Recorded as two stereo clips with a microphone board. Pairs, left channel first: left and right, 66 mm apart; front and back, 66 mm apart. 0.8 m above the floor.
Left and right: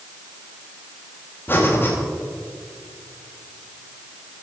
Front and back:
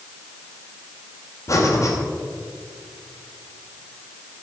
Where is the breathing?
35° left, 2.5 m.